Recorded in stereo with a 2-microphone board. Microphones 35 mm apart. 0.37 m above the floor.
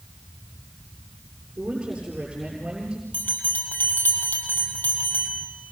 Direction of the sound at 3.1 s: 75° left (ahead or behind).